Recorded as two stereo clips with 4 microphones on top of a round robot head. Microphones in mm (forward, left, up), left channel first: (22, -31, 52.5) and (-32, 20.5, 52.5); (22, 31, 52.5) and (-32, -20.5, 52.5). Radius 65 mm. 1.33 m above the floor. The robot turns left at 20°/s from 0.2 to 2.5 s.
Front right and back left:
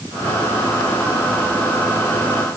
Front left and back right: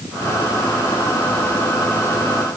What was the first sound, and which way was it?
Only background noise.